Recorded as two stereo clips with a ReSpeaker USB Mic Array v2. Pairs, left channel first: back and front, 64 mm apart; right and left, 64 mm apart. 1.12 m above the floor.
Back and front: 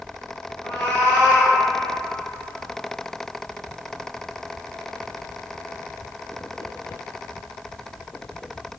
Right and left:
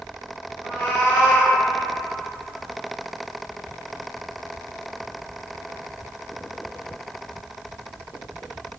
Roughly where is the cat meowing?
Behind right.